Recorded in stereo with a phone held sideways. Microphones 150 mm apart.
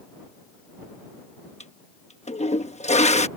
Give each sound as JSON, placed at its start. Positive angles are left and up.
{"t": 1.6, "sound": "a toilet flushing", "side_deg": 50}